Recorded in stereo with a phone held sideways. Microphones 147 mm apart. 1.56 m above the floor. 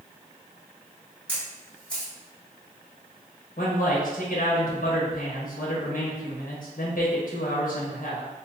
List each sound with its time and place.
1.3 s a camera shutter: 10° left (ahead or behind), 1.6 m
3.6 s a man speaking: 75° left (ahead or behind), 1.4 m